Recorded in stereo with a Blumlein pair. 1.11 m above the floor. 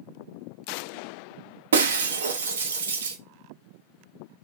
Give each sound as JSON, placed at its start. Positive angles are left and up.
{"t": 1.7, "sound": "breaking glass", "azimuth_deg": -65, "distance_m": 0.6}